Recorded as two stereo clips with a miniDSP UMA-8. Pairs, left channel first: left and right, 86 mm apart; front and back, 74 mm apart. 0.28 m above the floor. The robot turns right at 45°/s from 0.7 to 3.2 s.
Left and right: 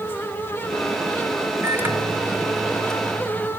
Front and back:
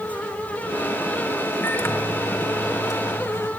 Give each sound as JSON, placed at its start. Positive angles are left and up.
{"t": 1.6, "sound": "a microwave", "azimuth_deg": -45, "distance_m": 1.3}